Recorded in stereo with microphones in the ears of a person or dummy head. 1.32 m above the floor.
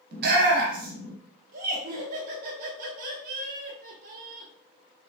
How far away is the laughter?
About 1.6 m.